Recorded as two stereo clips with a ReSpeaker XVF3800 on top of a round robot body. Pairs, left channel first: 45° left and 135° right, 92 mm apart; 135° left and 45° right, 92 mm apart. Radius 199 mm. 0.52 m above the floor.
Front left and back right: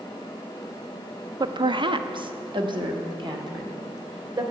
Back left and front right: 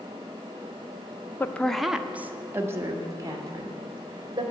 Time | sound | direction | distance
1.4 | a woman speaking | 165° right | 0.8 m